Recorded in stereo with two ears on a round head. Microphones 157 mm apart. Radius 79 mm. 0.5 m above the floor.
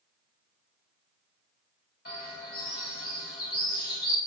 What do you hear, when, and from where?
2.0 s a bird: 55° left (ahead or behind), 1.3 m